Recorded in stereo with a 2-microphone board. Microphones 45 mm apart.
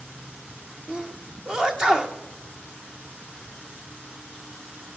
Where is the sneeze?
15° right (ahead or behind), 0.7 m.